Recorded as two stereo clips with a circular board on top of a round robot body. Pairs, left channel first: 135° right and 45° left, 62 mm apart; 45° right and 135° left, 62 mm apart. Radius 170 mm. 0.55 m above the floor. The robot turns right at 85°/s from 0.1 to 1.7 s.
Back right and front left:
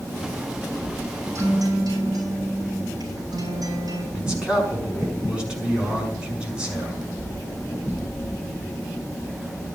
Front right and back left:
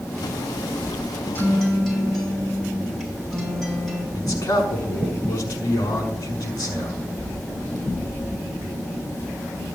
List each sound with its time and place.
1.4 s a guitar: 5° left, 5.5 m; by 4.0 s 35° left, 5.5 m
4.2 s a man speaking: 30° right, 6 m